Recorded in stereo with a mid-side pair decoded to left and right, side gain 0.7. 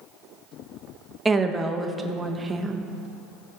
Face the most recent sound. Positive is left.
turn(degrees=-15)